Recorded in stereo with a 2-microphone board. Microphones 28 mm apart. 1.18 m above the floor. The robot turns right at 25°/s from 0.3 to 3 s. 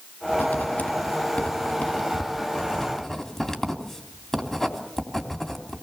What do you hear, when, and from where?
0.3 s writing: 80° left, 3 m; by 5.8 s 15° left (ahead or behind), 3 m